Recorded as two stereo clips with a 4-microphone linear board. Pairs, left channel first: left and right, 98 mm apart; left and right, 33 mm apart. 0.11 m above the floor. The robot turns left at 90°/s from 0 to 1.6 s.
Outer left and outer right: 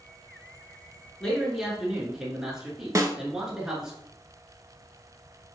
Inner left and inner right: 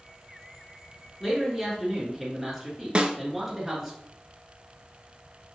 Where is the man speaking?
5° left (ahead or behind), 1.5 m; by 4.0 s 5° right (ahead or behind), 1.5 m.